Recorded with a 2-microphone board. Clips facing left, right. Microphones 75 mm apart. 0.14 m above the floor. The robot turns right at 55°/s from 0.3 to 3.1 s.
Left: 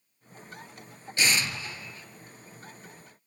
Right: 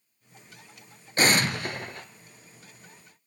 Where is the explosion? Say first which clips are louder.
Right 5 dB; 130° right, 0.7 m; by 2.1 s 80° right, 0.7 m.